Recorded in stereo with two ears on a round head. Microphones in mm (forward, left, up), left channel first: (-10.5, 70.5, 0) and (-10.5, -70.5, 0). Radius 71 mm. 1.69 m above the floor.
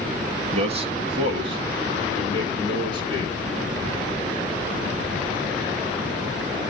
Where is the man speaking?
40° right (ahead or behind), 2.0 m; by 3.4 s 30° right (ahead or behind), 5 m.